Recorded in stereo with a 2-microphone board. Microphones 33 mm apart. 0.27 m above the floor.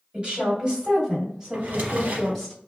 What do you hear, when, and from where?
0.1 s a woman speaking: 35° right (ahead or behind), 1.6 m; by 2.5 s centre (ahead or behind), 1.8 m
1.5 s a drawer: 60° right (ahead or behind), 0.8 m